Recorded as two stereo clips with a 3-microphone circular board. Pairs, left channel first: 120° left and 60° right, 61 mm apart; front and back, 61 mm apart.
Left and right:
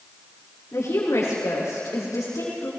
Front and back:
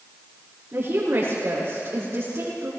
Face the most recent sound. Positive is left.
turn(degrees=140)